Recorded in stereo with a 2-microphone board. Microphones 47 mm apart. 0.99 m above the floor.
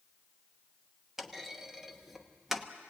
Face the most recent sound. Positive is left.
turn(degrees=-5)  # may be behind; listen again after turning